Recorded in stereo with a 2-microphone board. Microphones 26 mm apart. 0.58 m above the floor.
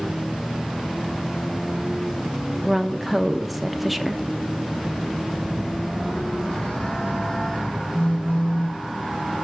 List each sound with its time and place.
2.6 s a woman speaking: centre (ahead or behind), 0.6 m
5.3 s a phone buzzing: 55° left (ahead or behind), 4.5 m
7.9 s a phone buzzing: 65° left (ahead or behind), 1.4 m